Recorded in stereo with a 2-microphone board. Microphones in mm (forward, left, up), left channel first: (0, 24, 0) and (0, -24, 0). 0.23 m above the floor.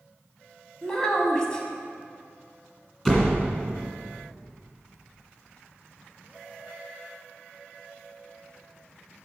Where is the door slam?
15° left (ahead or behind), 1.8 m.